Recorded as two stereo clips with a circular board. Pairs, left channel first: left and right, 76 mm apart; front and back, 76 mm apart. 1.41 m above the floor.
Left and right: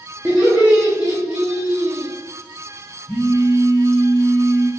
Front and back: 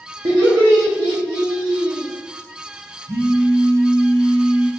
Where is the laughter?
170° right, 0.8 m.